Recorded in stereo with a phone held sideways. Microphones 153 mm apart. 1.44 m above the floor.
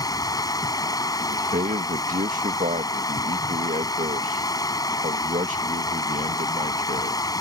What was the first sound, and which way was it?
Running water, 25° left (ahead or behind).